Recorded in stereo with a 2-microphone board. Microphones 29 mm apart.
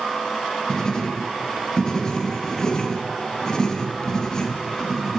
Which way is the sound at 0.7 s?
25° left (ahead or behind).